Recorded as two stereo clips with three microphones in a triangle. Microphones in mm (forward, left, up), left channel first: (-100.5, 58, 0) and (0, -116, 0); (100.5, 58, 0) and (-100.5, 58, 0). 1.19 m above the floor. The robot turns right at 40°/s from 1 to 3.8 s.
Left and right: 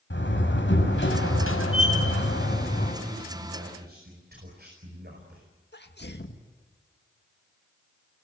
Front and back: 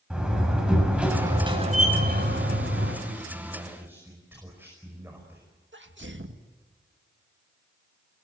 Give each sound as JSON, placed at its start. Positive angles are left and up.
{"t": 0.1, "sound": "a door slam", "azimuth_deg": 95, "distance_m": 6.0}
{"t": 3.0, "sound": "a man speaking", "azimuth_deg": -130, "distance_m": 5.0}
{"t": 5.7, "sound": "a sneeze", "azimuth_deg": 155, "distance_m": 1.9}